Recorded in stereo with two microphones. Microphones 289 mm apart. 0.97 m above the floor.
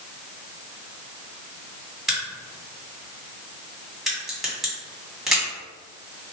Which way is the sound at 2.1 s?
Centre (ahead or behind).